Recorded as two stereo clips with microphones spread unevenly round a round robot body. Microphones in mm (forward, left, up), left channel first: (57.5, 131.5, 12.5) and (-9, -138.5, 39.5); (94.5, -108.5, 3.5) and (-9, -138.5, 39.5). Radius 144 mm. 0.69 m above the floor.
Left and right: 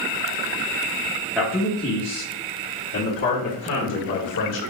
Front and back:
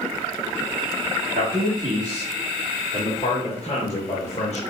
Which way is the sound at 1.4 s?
165° left.